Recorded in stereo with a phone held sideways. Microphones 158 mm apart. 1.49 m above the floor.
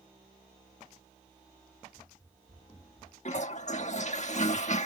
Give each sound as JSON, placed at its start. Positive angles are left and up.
{"t": 1.9, "sound": "running footsteps", "side_deg": 10}
{"t": 3.2, "sound": "a toilet flushing", "side_deg": 50}